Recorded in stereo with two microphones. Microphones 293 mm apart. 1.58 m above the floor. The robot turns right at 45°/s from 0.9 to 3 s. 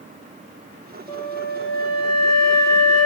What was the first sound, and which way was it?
A flute, 20° left.